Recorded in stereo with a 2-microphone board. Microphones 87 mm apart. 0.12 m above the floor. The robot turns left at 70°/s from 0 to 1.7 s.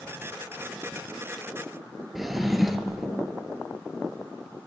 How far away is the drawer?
About 0.8 m.